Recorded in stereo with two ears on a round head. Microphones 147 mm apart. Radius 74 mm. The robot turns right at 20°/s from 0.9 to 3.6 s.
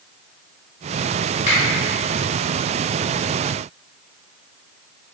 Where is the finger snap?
45° left (ahead or behind), 2.0 m.